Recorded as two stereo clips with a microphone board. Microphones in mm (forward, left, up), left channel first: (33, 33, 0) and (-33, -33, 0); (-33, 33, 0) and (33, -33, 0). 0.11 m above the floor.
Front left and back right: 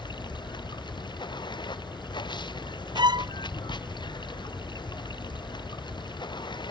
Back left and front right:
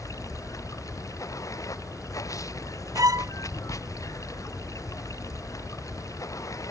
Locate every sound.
0.0 s running water: 80° left
3.0 s a violin: 100° right